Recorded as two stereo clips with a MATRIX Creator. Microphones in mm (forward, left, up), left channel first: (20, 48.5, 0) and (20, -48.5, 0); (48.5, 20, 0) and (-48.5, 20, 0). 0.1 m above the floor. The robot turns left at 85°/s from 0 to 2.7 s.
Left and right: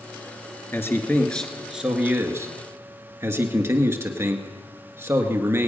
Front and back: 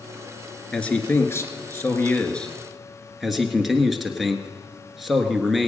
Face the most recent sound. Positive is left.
turn(degrees=-95)